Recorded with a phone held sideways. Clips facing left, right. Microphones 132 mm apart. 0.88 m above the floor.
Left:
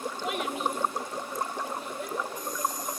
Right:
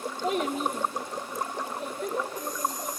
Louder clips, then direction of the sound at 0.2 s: Right 4 dB; 35° right (ahead or behind).